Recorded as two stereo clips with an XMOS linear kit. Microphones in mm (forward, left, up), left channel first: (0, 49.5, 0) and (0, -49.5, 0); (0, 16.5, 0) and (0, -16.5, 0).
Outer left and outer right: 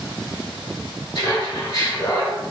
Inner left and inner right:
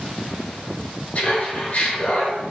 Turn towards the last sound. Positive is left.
turn(degrees=55)  # may be behind; listen again after turning